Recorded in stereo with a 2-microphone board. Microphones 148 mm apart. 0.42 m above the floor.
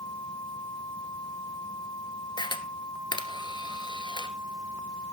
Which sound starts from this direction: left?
A camera shutter, at 2.4 s.